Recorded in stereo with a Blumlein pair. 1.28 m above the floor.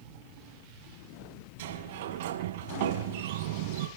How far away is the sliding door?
About 5.5 m.